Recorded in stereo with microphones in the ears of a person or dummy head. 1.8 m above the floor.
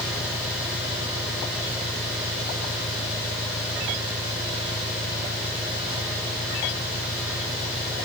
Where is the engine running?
30° left (ahead or behind).